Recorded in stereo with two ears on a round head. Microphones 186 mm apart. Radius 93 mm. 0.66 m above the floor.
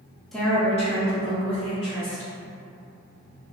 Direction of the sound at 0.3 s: Centre (ahead or behind).